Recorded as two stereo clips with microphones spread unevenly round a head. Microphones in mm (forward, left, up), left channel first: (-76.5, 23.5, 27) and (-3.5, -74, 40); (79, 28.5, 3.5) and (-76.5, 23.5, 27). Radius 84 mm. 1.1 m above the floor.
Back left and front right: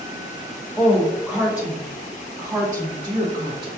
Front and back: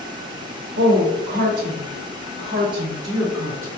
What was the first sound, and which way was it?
A woman speaking, 155° right.